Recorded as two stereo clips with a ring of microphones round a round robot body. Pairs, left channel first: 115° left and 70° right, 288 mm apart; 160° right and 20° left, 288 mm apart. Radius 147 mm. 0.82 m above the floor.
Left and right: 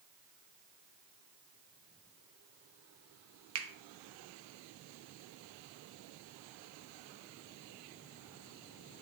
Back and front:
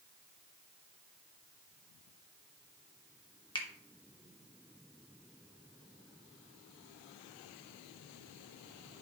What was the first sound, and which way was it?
A finger snap, 85° right.